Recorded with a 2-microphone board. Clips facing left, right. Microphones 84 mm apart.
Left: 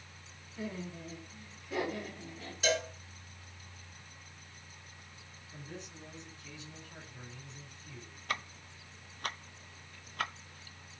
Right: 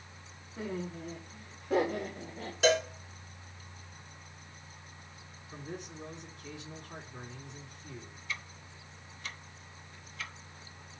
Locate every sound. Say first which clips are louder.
0.6 s laughter: right 3 dB; 80° right, 4.5 m; by 2.5 s 85° right, 3.5 m
2.6 s a cowbell: right 6 dB; 75° right (ahead or behind), 4.5 m
5.5 s a man speaking: right 5 dB; 75° right (ahead or behind), 3.5 m
8.3 s ticking: left 5 dB; 55° left (ahead or behind), 0.6 m